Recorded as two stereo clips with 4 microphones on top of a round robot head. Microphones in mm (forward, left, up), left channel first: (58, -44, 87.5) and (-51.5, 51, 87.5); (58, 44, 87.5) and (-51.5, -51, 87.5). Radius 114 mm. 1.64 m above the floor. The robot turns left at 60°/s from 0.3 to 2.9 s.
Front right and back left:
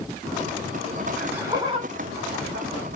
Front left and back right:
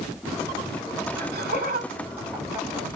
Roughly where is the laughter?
Behind right.